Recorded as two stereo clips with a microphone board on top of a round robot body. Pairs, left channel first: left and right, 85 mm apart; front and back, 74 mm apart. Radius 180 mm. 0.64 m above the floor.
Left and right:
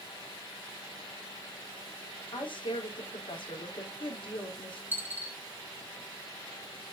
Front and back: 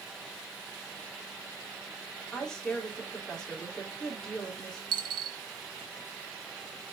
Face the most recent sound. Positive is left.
turn(degrees=-160)